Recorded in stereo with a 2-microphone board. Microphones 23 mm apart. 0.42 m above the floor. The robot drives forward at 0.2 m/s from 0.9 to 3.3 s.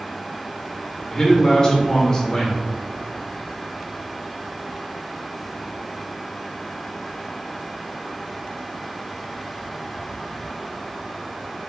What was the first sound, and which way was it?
A man speaking, 35° left (ahead or behind).